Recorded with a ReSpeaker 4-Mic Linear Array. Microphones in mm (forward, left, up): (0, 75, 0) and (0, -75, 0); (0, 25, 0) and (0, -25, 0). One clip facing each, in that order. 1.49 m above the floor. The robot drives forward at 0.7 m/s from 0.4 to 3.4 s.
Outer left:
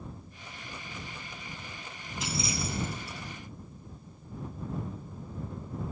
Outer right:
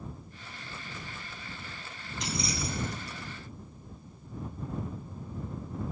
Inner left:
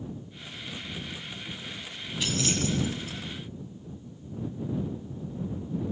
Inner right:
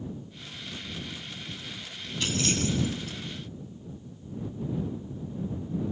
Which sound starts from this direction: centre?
Keys jangling, at 2.2 s.